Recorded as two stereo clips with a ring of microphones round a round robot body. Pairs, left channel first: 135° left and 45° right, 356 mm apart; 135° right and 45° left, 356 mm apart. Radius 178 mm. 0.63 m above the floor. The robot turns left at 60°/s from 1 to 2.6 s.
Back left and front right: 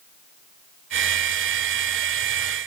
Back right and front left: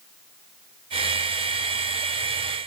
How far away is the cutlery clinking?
I don't hear cutlery clinking.